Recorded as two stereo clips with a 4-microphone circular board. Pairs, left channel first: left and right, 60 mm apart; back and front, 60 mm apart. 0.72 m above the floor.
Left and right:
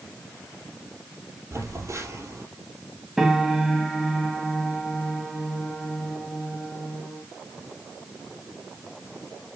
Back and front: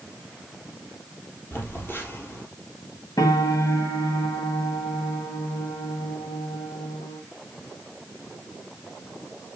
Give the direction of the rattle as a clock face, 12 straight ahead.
No rattle in this recording.